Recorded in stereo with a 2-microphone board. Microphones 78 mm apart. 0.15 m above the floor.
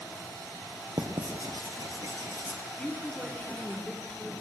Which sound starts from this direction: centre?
A woman speaking, at 2.8 s.